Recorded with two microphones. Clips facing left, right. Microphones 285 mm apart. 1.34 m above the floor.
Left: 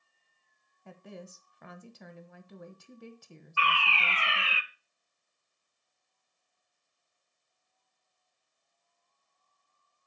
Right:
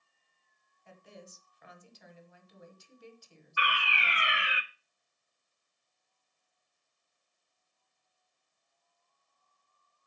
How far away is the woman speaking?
About 1.2 m.